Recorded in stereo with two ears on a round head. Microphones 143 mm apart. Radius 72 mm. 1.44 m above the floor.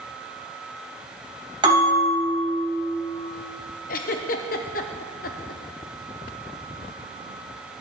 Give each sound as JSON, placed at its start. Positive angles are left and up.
{"t": 1.6, "sound": "a bell", "side_deg": -30, "distance_m": 4.0}
{"t": 3.9, "sound": "a giggle", "side_deg": 60, "distance_m": 0.7}